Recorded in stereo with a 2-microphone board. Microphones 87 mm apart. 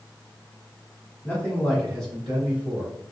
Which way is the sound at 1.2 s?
20° left (ahead or behind).